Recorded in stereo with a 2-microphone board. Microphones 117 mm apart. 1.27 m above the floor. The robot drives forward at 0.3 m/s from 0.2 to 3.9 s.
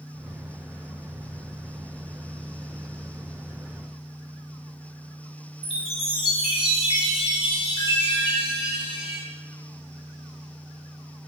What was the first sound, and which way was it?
A chime, 55° left (ahead or behind).